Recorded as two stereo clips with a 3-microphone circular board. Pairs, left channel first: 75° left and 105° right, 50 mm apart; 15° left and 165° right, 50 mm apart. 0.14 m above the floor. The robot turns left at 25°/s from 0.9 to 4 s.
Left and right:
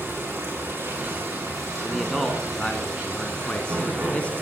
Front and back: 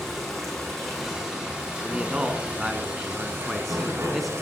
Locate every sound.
0.0 s running water: 75° right, 7 m; by 4.4 s 150° right, 7 m
1.8 s a man speaking: 155° left, 1.2 m; by 4.3 s 100° left, 1.2 m